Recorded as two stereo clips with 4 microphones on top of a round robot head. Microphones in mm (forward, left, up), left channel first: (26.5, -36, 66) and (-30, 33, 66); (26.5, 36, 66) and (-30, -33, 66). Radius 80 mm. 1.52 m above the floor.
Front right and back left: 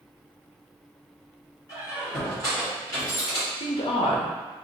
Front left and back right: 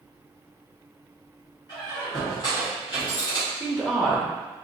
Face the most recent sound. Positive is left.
turn(degrees=-40)